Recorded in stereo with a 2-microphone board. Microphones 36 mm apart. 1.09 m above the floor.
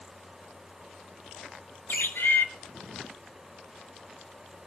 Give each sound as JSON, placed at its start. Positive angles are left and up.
{"t": 1.9, "sound": "a bird", "side_deg": 70, "distance_m": 3.5}